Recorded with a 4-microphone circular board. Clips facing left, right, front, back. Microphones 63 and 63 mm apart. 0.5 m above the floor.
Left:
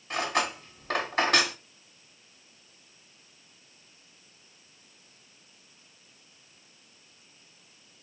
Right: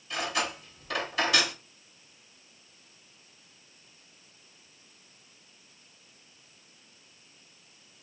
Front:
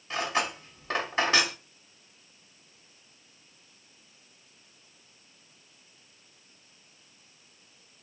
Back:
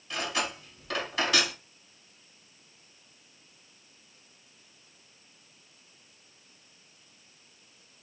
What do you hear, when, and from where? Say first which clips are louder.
0.1 s cutlery clinking: left 3 dB, front 3 dB; 55° left, 1.3 m